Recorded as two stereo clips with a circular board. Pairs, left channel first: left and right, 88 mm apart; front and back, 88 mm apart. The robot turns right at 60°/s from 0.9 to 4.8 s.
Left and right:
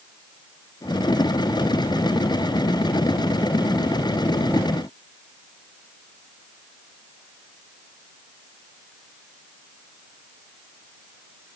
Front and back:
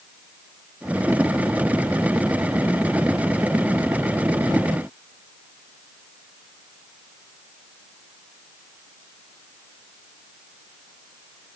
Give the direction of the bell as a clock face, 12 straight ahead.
No bell in this recording.